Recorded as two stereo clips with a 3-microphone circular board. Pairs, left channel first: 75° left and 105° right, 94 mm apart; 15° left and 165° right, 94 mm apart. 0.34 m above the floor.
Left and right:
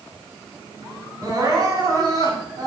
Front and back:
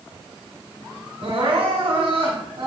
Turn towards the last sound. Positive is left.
turn(degrees=-155)